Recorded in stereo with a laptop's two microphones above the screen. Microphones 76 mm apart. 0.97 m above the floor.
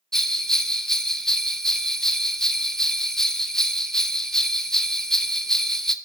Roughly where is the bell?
Centre.